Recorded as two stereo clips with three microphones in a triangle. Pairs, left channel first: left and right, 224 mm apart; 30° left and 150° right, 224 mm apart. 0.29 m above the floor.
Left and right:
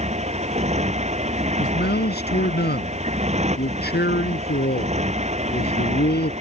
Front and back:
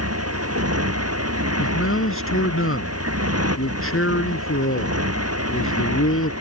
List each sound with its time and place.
0.0 s a motorcycle: 150° right
1.6 s a man speaking: 50° left